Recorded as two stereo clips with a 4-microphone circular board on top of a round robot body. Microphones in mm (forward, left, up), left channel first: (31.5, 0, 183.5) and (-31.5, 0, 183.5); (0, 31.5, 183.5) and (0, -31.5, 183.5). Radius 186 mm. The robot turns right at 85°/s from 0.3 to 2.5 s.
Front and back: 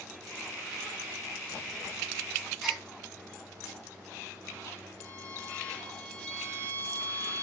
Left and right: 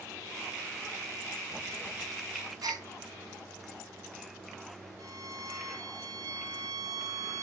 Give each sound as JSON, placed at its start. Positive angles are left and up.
{"t": 2.6, "sound": "a gasp", "azimuth_deg": -90, "distance_m": 3.0}
{"t": 5.0, "sound": "a violin", "azimuth_deg": -70, "distance_m": 2.0}